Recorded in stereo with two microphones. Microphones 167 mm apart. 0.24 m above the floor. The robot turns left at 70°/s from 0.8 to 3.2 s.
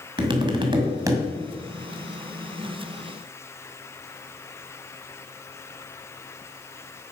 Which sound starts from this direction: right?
Tapping, at 0.2 s.